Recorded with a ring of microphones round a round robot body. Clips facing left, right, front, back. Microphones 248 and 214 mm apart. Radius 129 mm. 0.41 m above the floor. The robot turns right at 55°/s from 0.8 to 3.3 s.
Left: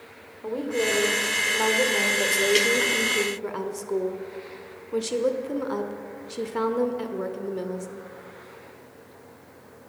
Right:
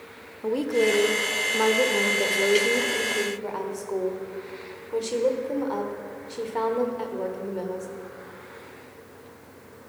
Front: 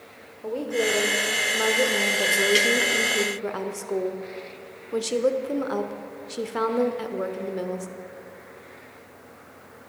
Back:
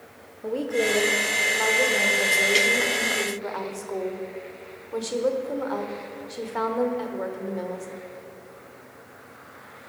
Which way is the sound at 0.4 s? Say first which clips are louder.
Right 4 dB, back 1 dB; 105° right.